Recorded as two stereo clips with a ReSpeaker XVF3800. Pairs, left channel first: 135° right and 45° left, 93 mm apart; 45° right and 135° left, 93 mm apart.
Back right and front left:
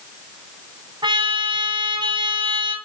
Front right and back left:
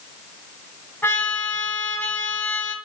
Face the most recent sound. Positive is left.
turn(degrees=20)